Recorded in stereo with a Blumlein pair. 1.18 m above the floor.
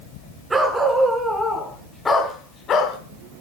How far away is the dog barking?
About 5 m.